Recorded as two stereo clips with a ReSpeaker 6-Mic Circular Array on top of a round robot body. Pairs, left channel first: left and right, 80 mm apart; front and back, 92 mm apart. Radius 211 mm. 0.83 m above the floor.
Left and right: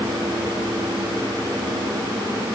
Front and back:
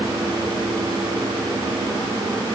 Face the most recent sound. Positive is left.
No sound to turn to.